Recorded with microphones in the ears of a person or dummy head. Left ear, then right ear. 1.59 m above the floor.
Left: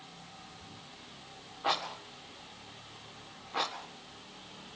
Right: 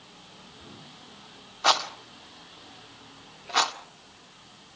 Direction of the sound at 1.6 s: 70° right (ahead or behind).